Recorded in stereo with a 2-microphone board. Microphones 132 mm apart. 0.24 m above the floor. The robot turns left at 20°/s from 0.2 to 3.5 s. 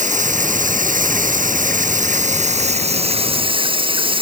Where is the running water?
70° right; by 4.2 s 140° right.